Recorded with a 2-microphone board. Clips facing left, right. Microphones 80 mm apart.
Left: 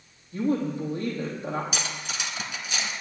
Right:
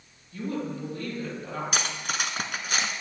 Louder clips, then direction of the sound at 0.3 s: Left 6 dB; 25° left (ahead or behind).